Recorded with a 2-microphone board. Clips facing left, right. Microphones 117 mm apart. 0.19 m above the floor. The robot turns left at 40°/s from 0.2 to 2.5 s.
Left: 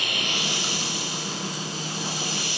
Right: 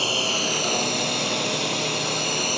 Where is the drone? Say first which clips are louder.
Right 5 dB; 35° right; by 2.6 s 125° right.